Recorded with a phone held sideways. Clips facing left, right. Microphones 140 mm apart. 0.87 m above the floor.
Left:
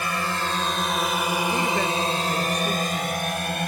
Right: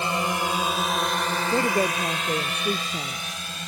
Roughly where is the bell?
I don't hear a bell.